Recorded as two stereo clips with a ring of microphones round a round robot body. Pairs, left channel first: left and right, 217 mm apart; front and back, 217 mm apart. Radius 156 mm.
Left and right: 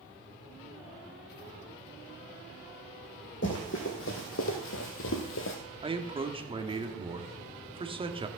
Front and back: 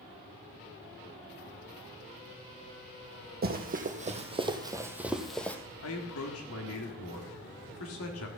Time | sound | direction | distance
3.4 | running footsteps | 140° left | 1.9 m
5.8 | a man speaking | 25° right | 1.7 m